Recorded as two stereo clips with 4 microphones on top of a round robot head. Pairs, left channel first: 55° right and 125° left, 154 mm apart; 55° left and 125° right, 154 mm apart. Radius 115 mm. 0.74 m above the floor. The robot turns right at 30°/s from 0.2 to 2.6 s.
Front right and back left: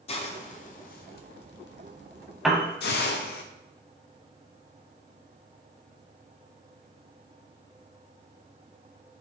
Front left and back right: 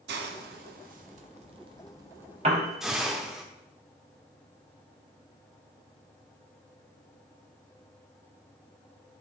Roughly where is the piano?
Behind right.